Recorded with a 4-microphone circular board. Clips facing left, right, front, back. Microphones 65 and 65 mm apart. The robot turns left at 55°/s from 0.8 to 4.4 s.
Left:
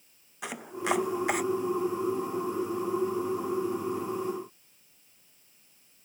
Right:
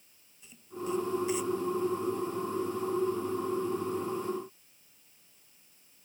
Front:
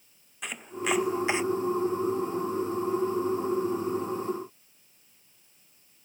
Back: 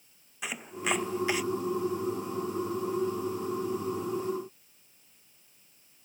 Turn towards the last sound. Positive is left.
turn(degrees=-105)